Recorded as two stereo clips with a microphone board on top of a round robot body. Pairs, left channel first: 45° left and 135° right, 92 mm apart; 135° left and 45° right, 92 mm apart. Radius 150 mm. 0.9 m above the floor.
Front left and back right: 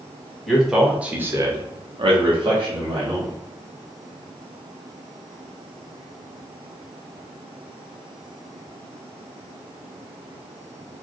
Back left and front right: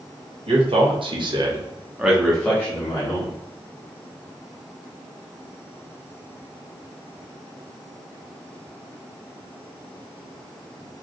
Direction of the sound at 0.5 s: 40° right.